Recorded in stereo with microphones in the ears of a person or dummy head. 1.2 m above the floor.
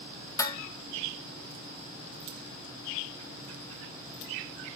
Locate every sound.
0.4 s dishes clattering: 15° left (ahead or behind), 0.7 m